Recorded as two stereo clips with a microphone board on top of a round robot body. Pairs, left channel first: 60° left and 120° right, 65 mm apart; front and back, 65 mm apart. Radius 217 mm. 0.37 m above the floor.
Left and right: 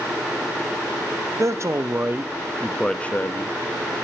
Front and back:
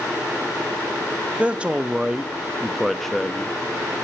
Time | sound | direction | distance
1.4 | a man speaking | 110° right | 1.0 m